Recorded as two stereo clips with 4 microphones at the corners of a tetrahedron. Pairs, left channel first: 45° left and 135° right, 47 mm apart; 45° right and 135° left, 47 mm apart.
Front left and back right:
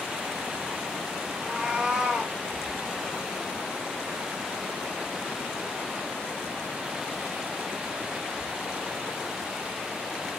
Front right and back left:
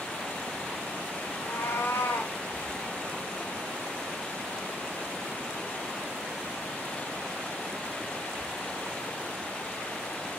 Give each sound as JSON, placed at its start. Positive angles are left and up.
{"t": 1.4, "sound": "a cat meowing", "azimuth_deg": -60, "distance_m": 1.4}